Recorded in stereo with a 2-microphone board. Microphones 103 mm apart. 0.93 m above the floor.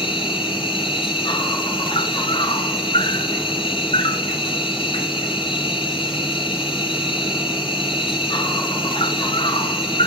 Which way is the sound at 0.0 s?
55° left (ahead or behind).